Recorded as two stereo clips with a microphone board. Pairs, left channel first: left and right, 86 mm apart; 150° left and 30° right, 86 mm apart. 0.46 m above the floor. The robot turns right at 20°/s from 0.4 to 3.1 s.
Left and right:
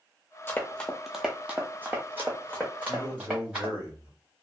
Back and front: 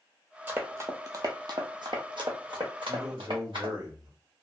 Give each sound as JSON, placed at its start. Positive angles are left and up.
{"t": 0.5, "sound": "running footsteps", "azimuth_deg": 35, "distance_m": 0.7}
{"t": 2.9, "sound": "a man speaking", "azimuth_deg": -55, "distance_m": 1.9}